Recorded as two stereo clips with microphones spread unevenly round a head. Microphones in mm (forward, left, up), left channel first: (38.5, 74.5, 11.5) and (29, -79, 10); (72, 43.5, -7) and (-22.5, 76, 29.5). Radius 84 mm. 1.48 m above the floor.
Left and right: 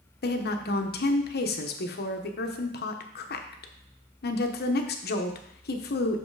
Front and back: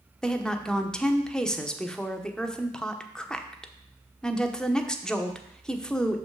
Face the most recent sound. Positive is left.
turn(degrees=65)